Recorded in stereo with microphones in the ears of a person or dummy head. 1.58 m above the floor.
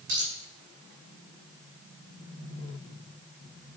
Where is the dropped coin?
60° right (ahead or behind), 5 m.